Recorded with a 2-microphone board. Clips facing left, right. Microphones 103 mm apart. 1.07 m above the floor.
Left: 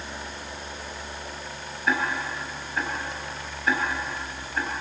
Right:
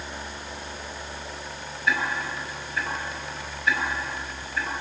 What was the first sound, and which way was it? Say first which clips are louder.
Ticking: left 1 dB; 45° left (ahead or behind).